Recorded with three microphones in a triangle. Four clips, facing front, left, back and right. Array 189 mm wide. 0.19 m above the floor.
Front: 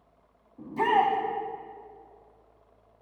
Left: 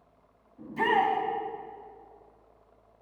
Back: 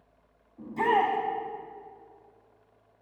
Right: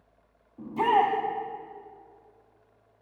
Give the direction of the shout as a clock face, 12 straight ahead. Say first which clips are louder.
Right 3 dB, front 1 dB; 2 o'clock.